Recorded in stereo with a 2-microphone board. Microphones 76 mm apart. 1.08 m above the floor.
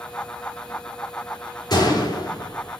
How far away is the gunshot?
About 4 m.